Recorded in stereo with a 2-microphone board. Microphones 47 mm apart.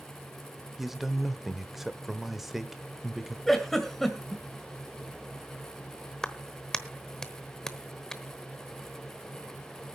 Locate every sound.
0.8 s a man speaking: 5° right (ahead or behind), 0.8 m
3.5 s a giggle: 5° left (ahead or behind), 1.8 m
6.2 s a clap: 10° left (ahead or behind), 1.0 m